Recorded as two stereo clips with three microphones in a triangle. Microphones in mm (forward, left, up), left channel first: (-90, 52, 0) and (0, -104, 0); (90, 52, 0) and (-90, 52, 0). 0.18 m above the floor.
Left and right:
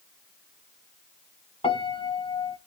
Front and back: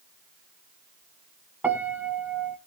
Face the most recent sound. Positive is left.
turn(degrees=110)